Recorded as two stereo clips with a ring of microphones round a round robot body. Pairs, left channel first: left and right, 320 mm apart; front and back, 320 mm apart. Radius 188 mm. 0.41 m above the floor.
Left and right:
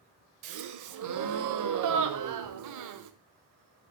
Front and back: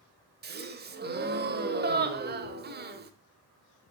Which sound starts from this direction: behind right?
A gasp, at 0.4 s.